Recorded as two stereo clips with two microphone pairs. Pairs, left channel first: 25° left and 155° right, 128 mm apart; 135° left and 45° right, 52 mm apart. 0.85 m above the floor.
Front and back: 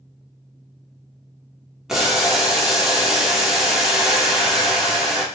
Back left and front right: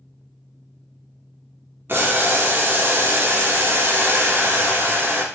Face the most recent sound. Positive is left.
turn(degrees=-65)